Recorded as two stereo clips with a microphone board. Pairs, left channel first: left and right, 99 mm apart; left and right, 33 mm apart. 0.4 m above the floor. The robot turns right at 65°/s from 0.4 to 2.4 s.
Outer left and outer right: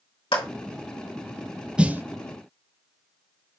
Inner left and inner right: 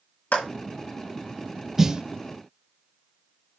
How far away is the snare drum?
About 0.6 m.